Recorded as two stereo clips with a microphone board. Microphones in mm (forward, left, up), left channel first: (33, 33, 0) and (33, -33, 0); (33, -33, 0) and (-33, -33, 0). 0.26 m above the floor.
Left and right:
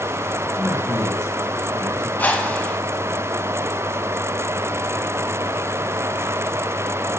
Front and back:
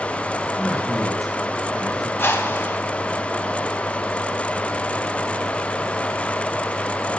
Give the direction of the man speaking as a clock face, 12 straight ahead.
9 o'clock.